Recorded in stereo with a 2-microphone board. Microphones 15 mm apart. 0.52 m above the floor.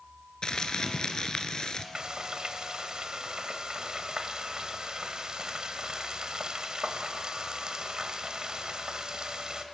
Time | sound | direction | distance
0.4 | crumpling | 60° left (ahead or behind) | 1.4 m
1.9 | frying | 55° right (ahead or behind) | 1.5 m